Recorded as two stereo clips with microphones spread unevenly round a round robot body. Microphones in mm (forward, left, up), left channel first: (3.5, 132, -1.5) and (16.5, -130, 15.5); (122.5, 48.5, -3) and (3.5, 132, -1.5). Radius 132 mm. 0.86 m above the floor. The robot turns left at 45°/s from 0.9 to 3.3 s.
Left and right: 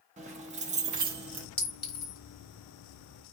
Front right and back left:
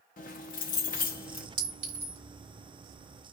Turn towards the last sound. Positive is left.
turn(degrees=100)